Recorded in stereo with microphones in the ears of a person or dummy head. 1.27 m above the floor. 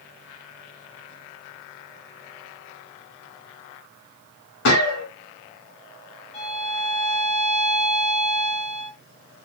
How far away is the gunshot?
About 1.5 m.